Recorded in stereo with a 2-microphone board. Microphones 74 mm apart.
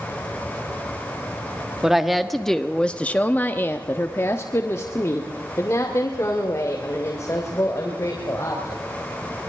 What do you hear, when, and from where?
1.8 s a woman speaking: 5° right (ahead or behind), 1.2 m; by 8.8 s 40° left (ahead or behind), 3.5 m